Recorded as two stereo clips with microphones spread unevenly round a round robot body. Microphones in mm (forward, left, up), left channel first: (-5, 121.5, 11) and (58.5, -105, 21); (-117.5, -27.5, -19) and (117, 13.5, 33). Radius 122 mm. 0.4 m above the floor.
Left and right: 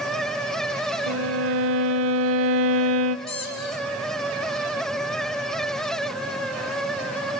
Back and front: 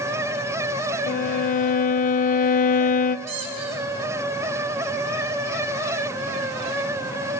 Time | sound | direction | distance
1.1 | a violin | 110° right | 0.6 m
3.3 | a squeak | 40° left | 4 m